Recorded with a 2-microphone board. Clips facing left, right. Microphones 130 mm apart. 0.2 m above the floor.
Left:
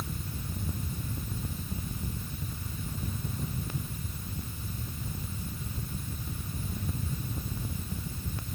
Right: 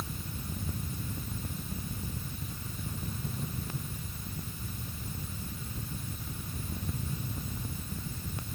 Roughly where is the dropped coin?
No dropped coin in this recording.